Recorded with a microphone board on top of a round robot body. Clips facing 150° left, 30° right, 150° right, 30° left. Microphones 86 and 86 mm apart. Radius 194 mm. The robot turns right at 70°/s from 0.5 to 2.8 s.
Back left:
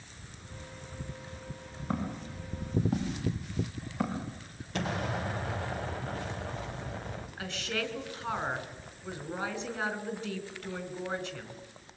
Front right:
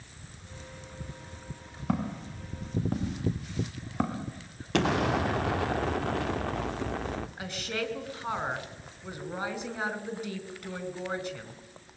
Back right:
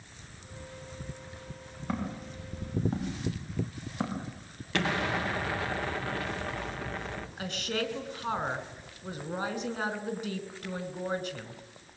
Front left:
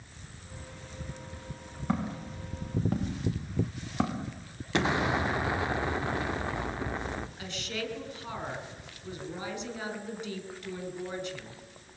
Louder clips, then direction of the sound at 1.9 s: Front right 3 dB, front left 3 dB; 60° right.